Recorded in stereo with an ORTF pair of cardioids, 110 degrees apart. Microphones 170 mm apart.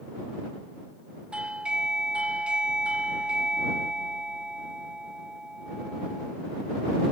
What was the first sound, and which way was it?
A doorbell, 5° right.